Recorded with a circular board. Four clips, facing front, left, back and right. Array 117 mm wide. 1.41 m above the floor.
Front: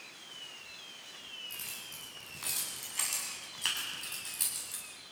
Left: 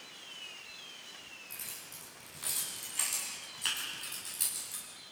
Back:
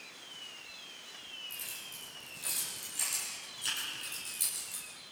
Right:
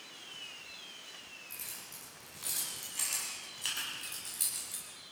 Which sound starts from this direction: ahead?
Keys jangling, at 1.5 s.